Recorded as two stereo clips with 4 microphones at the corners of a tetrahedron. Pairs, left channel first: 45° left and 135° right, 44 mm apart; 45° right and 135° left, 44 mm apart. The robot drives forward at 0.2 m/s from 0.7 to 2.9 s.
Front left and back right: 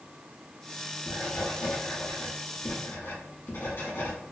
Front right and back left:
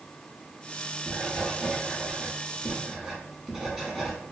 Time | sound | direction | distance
1.1 | writing | 50° left | 1.8 m